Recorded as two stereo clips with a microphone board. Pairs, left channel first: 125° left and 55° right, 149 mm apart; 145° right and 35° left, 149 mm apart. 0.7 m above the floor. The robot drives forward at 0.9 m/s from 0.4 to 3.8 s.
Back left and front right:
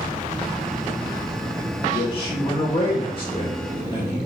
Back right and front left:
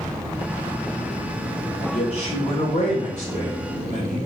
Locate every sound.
1.9 s a man speaking: 170° left, 1.9 m; by 4.2 s 175° left, 3.5 m